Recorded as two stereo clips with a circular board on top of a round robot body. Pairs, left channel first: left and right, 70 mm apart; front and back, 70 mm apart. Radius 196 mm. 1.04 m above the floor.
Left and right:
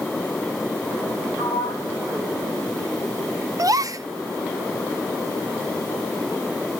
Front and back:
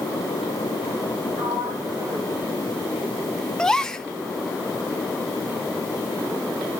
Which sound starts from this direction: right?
A gasp, at 3.6 s.